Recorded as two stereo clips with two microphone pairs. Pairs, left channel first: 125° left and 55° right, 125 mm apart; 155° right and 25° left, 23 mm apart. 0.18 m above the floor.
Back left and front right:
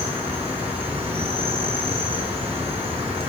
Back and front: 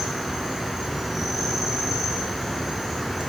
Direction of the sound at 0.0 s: 65° right.